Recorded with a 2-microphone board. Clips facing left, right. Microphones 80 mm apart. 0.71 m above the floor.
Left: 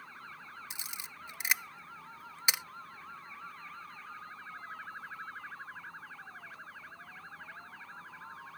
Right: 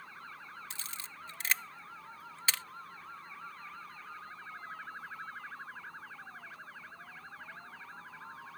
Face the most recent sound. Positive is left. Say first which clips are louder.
# even
turn(degrees=15)  # may be behind; listen again after turning